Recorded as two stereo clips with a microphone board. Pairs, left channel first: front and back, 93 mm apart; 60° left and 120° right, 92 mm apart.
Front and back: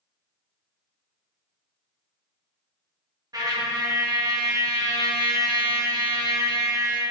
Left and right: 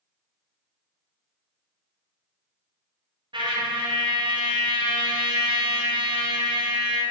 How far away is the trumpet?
About 0.5 m.